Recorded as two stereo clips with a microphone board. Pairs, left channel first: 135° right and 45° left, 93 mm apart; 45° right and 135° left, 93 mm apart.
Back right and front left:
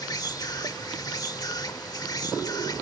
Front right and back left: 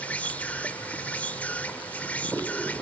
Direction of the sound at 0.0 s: 110° right.